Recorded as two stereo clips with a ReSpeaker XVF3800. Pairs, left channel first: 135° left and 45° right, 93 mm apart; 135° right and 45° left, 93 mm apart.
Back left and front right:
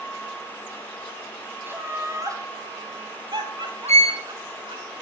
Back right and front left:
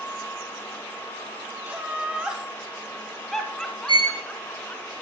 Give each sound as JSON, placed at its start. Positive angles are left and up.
{"t": 1.7, "sound": "laughter", "azimuth_deg": -5, "distance_m": 1.3}
{"t": 3.9, "sound": "a violin", "azimuth_deg": 75, "distance_m": 2.5}